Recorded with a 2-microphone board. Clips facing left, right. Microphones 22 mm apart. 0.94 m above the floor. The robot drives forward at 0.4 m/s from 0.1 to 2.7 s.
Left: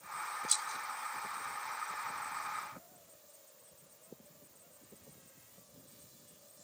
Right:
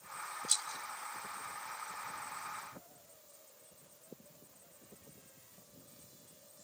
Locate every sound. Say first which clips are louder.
0.5 s a rattle: right 1 dB; 20° right (ahead or behind)